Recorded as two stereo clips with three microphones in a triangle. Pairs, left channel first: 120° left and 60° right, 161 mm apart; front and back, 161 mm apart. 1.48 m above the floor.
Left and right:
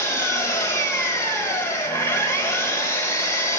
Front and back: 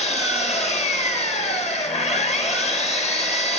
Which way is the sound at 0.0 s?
50° left.